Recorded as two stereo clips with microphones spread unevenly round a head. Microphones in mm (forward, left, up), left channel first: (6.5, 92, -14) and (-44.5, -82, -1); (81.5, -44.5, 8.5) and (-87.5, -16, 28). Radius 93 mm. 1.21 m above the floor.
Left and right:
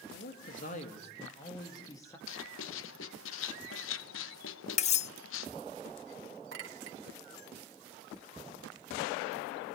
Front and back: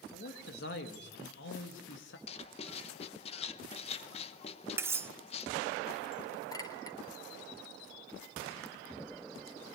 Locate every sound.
0.1 s a man speaking: 30° left, 2 m; by 2.2 s straight ahead, 2.5 m
2.3 s writing: 50° left, 0.9 m
4.8 s cutlery clinking: 110° left, 0.6 m
6.5 s a clink: 80° right, 3.5 m